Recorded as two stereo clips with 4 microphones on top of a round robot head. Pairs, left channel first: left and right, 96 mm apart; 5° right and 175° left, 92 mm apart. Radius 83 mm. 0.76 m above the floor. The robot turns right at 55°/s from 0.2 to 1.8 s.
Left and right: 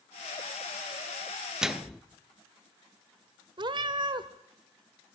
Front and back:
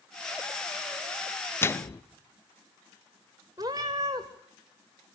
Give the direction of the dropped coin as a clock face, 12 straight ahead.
No dropped coin in this recording.